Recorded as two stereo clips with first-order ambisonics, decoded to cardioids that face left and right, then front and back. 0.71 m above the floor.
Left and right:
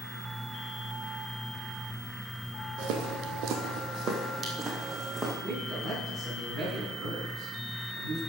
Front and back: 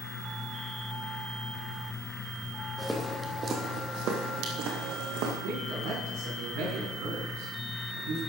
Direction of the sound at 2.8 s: 80° right.